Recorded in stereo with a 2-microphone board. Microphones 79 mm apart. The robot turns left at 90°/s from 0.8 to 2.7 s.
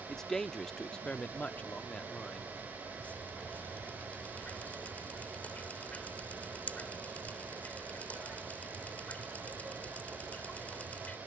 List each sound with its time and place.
0.1 s a man speaking: 5° left (ahead or behind); by 2.5 s centre (ahead or behind)
3.0 s dripping: 20° left (ahead or behind)